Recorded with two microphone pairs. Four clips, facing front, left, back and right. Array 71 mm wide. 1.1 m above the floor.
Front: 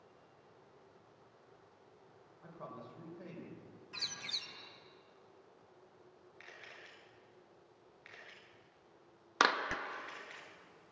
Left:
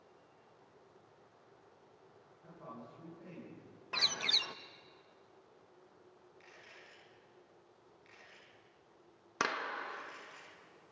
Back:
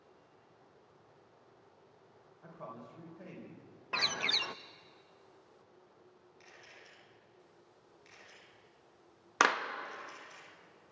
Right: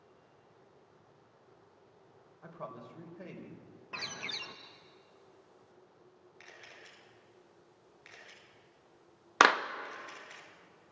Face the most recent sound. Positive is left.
turn(degrees=-95)